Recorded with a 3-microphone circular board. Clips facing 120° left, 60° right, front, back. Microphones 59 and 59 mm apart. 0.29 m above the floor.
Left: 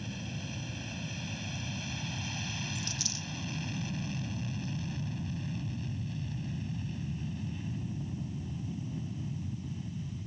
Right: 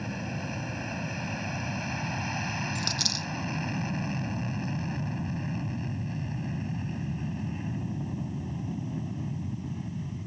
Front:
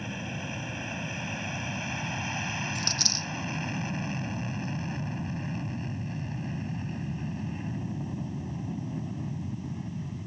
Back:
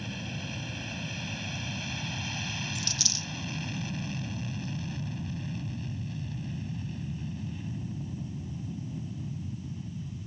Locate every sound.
0.0 s an aircraft: 60° right; by 10.3 s 20° right
2.8 s a dropped coin: 40° right